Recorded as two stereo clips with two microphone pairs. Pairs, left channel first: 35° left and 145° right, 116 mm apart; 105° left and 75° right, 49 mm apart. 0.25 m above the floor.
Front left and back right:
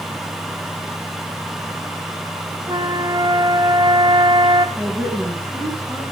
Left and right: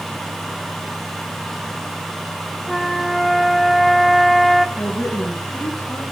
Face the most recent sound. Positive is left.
turn(degrees=150)